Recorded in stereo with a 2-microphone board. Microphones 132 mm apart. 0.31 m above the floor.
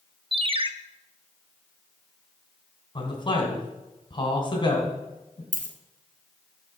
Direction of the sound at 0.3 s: 40° right (ahead or behind).